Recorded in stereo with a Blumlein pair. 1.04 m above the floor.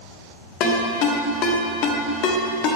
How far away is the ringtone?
About 1.3 m.